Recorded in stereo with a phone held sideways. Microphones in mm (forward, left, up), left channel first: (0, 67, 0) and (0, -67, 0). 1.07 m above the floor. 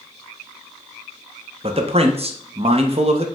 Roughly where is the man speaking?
Right.